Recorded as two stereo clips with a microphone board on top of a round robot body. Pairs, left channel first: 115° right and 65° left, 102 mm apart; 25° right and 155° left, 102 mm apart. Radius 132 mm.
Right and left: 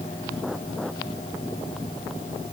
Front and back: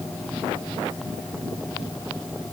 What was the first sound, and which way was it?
Only background noise.